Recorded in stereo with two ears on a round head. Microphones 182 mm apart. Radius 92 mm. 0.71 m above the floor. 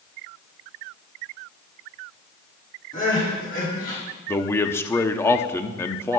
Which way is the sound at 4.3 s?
10° left (ahead or behind).